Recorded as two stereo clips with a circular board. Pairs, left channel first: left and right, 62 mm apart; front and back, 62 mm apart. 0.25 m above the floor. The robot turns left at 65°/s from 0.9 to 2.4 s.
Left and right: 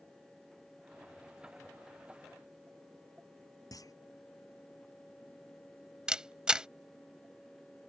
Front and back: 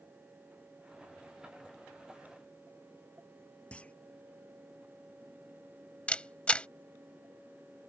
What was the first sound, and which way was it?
A clunk, 70° left.